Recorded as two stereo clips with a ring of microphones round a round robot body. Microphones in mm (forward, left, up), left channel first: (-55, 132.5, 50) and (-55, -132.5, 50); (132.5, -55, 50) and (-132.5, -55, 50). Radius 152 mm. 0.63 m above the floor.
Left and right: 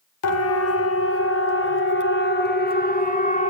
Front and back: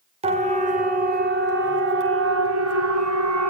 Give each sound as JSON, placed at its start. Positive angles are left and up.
{"t": 0.2, "sound": "a siren", "azimuth_deg": 110, "distance_m": 3.0}